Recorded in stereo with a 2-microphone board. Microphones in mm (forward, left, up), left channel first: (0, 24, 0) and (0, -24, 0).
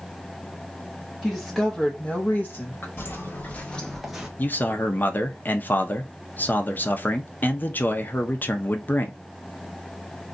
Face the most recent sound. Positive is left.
turn(degrees=40)  # may be behind; listen again after turning